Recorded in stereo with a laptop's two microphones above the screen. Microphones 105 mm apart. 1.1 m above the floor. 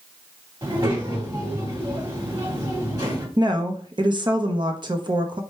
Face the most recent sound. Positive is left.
turn(degrees=-45)  # may be behind; listen again after turning